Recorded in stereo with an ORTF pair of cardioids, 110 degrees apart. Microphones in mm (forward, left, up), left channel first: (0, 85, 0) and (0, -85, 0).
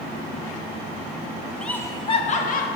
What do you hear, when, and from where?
1.6 s laughter: 5° left, 0.7 m; by 2.7 s 60° left, 0.9 m